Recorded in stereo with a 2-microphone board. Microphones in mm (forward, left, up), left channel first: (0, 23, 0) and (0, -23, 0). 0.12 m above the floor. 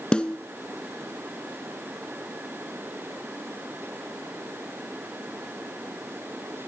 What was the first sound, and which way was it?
A snare drum, 20° left (ahead or behind).